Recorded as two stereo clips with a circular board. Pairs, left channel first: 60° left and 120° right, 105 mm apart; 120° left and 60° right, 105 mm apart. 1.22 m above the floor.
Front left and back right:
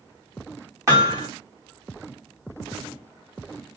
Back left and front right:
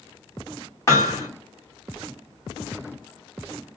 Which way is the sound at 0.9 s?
Straight behind.